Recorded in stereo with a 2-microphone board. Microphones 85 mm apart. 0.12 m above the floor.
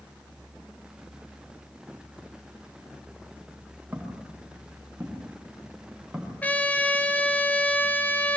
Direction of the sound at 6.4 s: 15° left (ahead or behind).